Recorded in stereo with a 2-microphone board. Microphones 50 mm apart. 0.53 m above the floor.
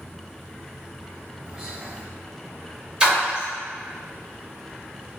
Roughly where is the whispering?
Centre.